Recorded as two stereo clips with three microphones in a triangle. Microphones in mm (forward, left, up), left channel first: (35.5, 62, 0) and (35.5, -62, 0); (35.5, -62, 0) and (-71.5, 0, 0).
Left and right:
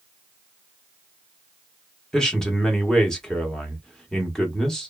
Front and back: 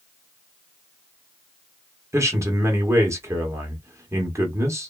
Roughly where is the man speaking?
Behind.